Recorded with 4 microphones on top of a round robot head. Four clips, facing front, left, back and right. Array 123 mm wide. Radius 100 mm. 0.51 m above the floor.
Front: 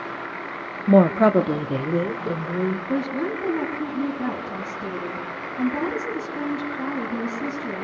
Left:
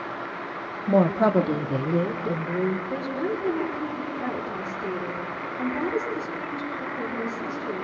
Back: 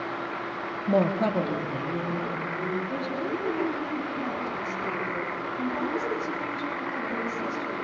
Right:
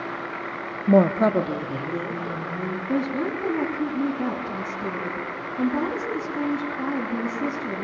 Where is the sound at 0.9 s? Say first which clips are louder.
Right 2 dB, front 8 dB; 35° right, 1.3 m; by 2.8 s 40° left, 3 m.